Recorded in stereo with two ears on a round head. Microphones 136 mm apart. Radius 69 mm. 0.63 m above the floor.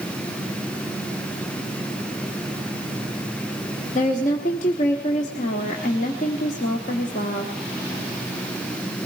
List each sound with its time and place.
4.0 s a woman speaking: 50° left (ahead or behind), 1.1 m